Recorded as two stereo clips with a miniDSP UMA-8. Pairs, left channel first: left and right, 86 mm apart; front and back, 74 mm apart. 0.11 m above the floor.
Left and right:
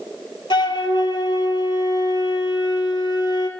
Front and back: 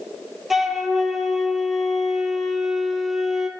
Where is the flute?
95° left, 0.5 m.